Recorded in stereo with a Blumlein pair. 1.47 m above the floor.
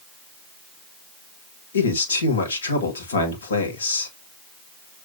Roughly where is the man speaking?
Left.